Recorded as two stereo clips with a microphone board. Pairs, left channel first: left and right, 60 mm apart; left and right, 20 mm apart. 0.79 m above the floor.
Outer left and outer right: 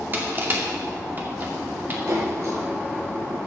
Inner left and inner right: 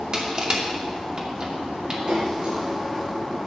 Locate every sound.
0.1 s crushing: 35° right (ahead or behind), 2 m
2.1 s a splash: 60° right (ahead or behind), 7.5 m